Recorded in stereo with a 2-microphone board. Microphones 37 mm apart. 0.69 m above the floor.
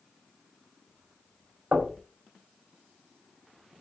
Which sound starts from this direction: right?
Knocking, at 1.7 s.